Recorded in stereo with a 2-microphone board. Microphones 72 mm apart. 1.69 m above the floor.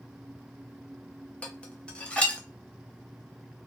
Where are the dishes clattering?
15° left (ahead or behind), 0.7 m.